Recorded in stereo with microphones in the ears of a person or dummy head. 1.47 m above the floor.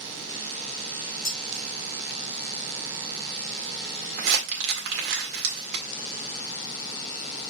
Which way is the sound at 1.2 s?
50° left (ahead or behind).